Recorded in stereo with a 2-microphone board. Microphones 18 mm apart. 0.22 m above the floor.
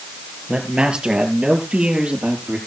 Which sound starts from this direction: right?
A man speaking, at 0.5 s.